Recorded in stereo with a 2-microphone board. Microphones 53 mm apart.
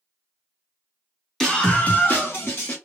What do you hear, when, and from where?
1.4 s a scream: 10° left (ahead or behind), 1.4 m; by 2.8 s 45° left (ahead or behind), 1.8 m